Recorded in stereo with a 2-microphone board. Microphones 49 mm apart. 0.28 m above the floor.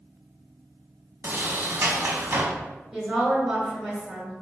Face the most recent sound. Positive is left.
turn(degrees=-15)  # may be behind; listen again after turning